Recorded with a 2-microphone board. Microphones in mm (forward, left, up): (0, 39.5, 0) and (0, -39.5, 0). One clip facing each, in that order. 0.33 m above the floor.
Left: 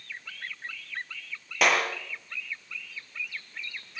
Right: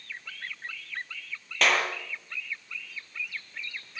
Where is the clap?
10° left (ahead or behind), 6 m.